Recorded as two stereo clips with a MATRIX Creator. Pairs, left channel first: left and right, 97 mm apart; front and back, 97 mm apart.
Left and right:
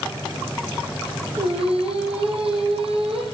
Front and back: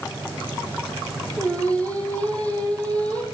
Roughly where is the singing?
Right.